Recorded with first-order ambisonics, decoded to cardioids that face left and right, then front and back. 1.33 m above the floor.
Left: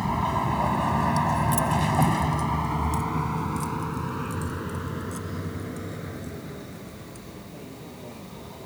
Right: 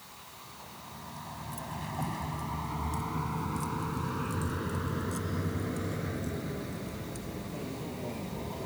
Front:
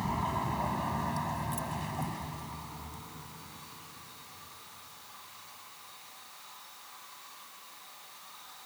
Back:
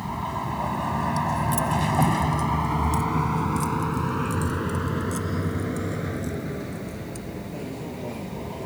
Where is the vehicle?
95° left; by 8.7 s 170° right.